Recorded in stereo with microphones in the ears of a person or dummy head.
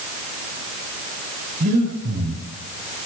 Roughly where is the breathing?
Right.